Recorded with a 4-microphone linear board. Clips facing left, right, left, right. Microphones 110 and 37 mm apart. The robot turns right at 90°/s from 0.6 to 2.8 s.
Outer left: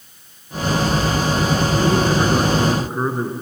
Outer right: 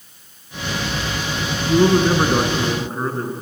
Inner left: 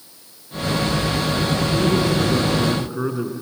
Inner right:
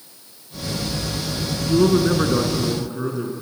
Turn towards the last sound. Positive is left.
turn(degrees=15)